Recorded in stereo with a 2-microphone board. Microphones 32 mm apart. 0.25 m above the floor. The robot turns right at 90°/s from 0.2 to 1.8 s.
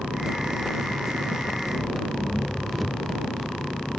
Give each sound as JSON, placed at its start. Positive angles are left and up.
{"t": 0.0, "sound": "an engine running", "azimuth_deg": -140}